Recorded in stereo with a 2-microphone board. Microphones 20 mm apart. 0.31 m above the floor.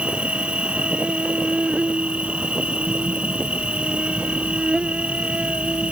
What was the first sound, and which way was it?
An insect, 80° right.